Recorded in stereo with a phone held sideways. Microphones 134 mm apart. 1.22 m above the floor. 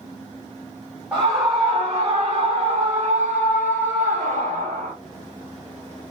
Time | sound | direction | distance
1.1 | a scream | 20° right (ahead or behind) | 1.5 m